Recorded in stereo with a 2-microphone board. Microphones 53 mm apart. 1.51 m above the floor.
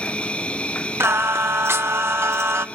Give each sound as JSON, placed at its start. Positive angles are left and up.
{"t": 0.0, "sound": "an insect", "side_deg": 20, "distance_m": 0.8}
{"t": 1.0, "sound": "singing", "side_deg": -55, "distance_m": 1.1}